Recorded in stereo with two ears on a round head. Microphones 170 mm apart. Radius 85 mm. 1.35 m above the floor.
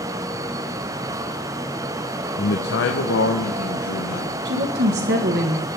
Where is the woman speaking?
55° right (ahead or behind), 1.5 m.